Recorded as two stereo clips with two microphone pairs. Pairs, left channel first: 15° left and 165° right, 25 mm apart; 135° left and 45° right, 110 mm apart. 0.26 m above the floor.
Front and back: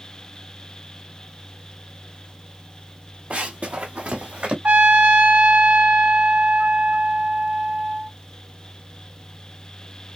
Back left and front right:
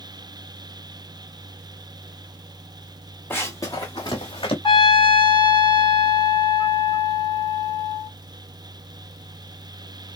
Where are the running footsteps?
155° right, 1.0 m; by 4.5 s 170° left, 1.6 m.